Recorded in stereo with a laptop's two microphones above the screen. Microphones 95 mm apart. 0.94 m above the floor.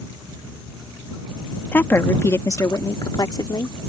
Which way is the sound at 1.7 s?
20° left (ahead or behind).